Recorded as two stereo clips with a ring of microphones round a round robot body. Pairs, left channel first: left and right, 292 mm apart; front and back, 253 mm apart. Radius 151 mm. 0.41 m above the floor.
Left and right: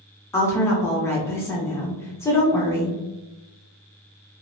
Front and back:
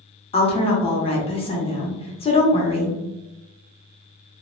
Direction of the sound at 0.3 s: 20° left.